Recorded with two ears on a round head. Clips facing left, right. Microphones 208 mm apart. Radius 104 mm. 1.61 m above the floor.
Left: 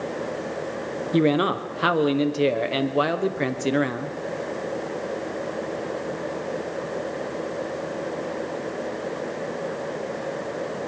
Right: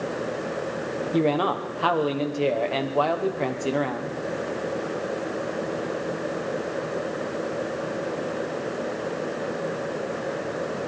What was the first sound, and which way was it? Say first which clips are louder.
A man speaking: left 3 dB; 25° left (ahead or behind).